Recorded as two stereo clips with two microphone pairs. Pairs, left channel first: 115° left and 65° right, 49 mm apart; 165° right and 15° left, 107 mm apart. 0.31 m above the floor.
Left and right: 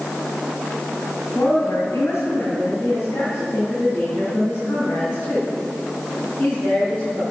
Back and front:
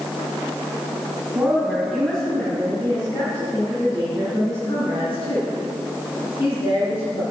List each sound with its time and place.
1.3 s a woman speaking: 90° left, 2 m; by 7.2 s 165° left, 5 m